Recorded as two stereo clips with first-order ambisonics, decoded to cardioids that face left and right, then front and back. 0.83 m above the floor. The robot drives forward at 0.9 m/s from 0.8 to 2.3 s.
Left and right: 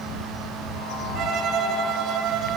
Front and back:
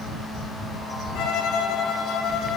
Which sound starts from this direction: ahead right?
A violin, at 1.1 s.